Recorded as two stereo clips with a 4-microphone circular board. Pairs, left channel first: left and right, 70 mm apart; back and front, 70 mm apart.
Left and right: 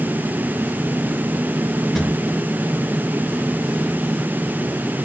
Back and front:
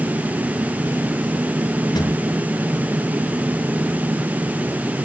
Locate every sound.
1.9 s a drawer: 175° left, 4.5 m